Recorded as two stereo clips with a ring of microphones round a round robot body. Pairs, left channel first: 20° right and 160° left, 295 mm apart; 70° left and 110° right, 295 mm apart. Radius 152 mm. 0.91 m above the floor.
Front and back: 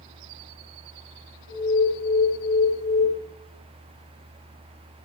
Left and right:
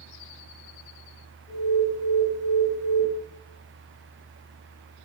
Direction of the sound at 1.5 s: 10° right.